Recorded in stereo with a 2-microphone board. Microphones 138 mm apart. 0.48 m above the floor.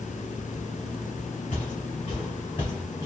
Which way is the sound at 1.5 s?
55° left (ahead or behind).